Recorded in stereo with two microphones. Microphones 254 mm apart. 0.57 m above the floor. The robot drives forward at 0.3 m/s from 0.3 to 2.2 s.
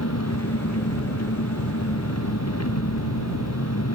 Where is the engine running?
80° left.